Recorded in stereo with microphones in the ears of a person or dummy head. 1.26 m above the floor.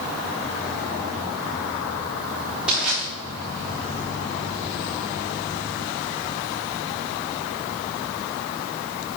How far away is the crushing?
About 3.5 m.